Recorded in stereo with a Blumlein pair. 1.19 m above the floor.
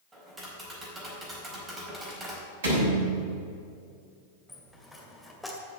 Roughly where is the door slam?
Ahead right.